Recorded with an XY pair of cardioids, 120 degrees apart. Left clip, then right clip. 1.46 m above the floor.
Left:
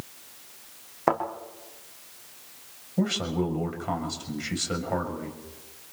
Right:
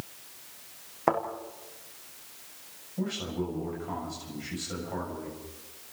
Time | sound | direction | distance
1.1 | a thud | 10° left | 7 m
3.0 | a man speaking | 55° left | 7 m